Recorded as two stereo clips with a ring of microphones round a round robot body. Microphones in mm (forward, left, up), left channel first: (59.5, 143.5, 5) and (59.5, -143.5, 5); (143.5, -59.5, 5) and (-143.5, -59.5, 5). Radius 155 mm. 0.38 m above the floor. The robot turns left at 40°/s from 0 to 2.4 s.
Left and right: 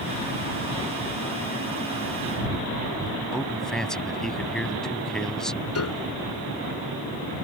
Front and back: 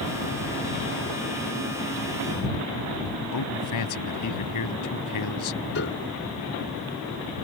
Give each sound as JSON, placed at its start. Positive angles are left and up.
{"t": 3.3, "sound": "a man speaking", "azimuth_deg": 0}
{"t": 5.8, "sound": "a piano", "azimuth_deg": 55}